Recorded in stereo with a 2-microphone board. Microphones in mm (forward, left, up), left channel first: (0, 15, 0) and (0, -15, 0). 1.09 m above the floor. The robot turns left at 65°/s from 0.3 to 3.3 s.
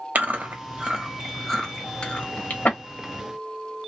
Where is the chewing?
65° right (ahead or behind), 1.1 m; by 2.8 s 70° left (ahead or behind), 1.1 m.